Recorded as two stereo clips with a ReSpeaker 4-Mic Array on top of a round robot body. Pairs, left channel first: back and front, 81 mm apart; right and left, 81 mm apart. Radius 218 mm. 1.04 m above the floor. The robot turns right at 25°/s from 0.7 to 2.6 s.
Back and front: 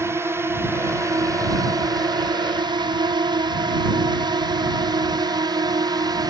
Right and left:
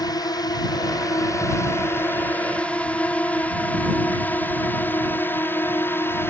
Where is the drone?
55° right; by 6.3 s 30° right.